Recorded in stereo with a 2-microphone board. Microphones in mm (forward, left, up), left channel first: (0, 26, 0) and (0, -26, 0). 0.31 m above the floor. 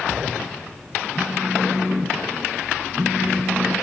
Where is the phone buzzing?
10° right (ahead or behind), 4 m.